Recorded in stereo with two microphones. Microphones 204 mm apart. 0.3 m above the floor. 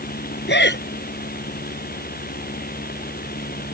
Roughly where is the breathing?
Left.